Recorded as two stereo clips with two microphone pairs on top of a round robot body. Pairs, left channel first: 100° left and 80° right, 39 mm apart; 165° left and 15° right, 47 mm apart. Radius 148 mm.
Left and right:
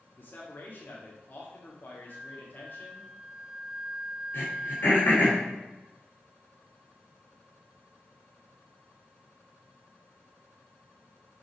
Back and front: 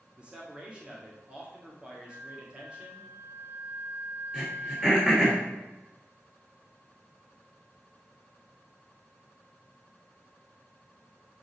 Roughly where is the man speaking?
Ahead left.